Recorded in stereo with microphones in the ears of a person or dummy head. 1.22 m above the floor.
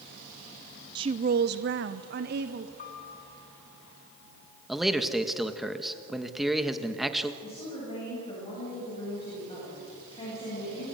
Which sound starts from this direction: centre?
A man speaking, at 4.7 s.